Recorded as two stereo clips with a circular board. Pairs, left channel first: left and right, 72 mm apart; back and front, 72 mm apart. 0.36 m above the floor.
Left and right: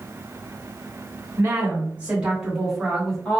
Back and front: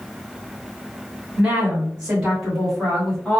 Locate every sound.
1.4 s a woman speaking: 60° right, 1.7 m; by 3.4 s 140° left, 1.4 m